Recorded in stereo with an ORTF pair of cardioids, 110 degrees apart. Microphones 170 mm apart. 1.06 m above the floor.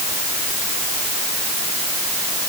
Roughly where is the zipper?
No zipper in this recording.